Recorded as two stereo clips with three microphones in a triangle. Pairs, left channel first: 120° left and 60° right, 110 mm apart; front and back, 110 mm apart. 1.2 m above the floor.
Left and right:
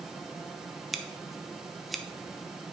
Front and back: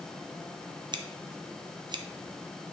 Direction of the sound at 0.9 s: 150° right.